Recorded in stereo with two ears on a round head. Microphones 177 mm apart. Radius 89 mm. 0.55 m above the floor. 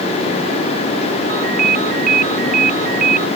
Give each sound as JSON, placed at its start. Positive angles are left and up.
{"t": 1.3, "sound": "a ringtone", "side_deg": -50}